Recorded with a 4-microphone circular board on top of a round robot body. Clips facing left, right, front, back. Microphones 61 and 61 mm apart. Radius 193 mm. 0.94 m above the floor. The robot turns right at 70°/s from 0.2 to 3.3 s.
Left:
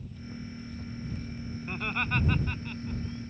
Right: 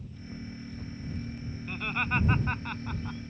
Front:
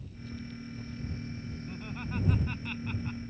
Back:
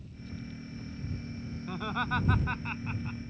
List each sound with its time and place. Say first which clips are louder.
1.7 s laughter: right 1 dB, back 9 dB; 160° left; by 3.2 s 90° right